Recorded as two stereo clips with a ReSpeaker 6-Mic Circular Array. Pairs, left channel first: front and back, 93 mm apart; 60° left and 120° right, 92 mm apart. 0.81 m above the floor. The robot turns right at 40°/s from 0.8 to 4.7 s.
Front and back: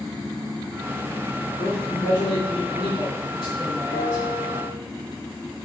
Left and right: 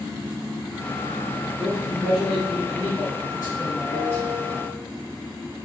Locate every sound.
1.6 s a man speaking: 75° right, 2 m; by 4.2 s 35° left, 2 m
3.9 s a bell: 15° left, 1.5 m; by 4.8 s 45° left, 1.5 m